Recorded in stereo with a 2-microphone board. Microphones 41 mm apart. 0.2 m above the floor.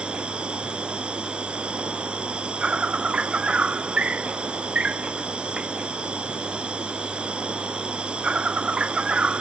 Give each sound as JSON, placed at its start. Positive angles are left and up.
{"t": 0.0, "sound": "an insect", "side_deg": -30}